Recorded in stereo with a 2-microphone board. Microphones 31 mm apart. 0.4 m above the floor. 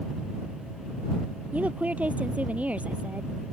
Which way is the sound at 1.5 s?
50° right (ahead or behind).